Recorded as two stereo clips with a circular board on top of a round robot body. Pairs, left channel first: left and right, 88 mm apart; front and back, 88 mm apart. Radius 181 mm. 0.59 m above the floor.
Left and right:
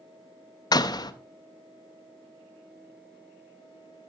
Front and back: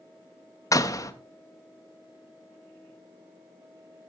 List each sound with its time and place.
0.7 s a door slam: 50° left, 0.9 m